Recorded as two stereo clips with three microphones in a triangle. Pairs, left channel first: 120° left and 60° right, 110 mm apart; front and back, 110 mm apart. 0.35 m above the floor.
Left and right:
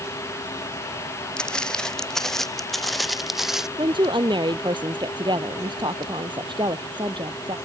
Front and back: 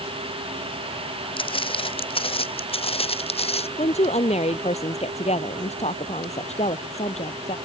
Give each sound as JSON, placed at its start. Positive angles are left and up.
{"t": 1.4, "sound": "footsteps", "azimuth_deg": 40}
{"t": 3.8, "sound": "a woman speaking", "azimuth_deg": -15}